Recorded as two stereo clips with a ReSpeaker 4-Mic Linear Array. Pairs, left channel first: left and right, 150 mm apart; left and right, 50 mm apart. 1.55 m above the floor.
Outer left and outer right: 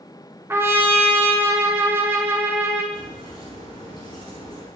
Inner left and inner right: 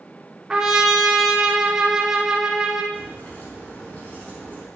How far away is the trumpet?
About 1.9 m.